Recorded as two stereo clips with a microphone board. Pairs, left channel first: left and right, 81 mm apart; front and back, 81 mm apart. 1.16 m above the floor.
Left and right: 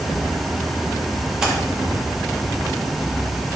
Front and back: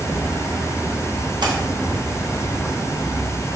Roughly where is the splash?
Behind.